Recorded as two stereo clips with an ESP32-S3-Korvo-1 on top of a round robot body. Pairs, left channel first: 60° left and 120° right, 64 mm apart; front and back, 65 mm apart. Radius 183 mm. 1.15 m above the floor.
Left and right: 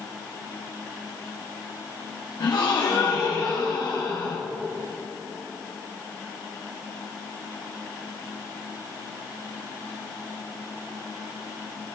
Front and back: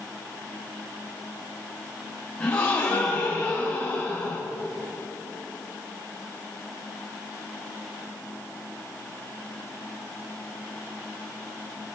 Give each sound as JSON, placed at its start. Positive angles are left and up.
{"t": 2.4, "sound": "a gasp", "azimuth_deg": 70, "distance_m": 1.8}